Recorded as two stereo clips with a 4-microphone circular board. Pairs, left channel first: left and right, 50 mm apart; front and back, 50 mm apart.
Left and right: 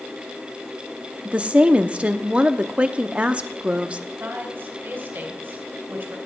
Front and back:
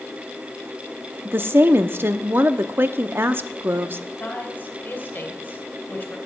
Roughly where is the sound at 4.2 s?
Ahead right.